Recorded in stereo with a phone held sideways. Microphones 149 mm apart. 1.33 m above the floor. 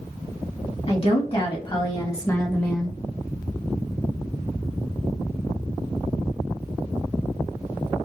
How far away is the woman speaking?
About 2.5 m.